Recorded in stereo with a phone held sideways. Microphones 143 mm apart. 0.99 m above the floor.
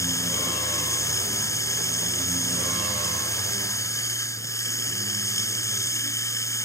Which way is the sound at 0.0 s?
20° left (ahead or behind).